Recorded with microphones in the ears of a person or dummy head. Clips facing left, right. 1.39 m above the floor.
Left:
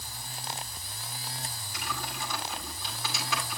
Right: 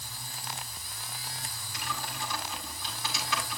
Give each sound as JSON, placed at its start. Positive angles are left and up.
{"t": 1.7, "sound": "typing on a keyboard", "side_deg": 90, "distance_m": 6.0}